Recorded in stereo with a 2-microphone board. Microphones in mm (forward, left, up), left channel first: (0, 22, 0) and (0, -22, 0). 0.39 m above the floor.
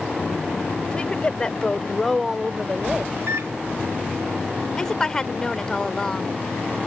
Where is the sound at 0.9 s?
20° left (ahead or behind); by 3.0 s 20° right (ahead or behind).